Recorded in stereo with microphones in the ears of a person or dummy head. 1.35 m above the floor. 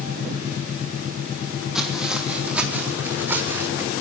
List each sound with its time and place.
1.8 s footsteps: centre (ahead or behind), 4 m; by 3.9 s 15° right (ahead or behind), 5 m